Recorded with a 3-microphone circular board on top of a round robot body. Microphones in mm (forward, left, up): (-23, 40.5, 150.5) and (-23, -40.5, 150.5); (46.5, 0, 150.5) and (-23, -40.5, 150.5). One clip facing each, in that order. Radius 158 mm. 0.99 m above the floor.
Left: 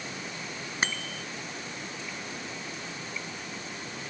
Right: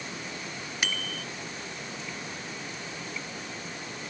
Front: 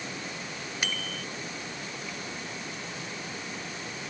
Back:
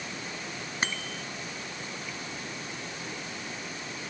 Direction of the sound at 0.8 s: 150° left.